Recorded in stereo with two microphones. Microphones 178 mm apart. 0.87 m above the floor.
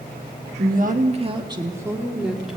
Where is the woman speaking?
55° right (ahead or behind), 1.3 m; by 2.6 s centre (ahead or behind), 2 m.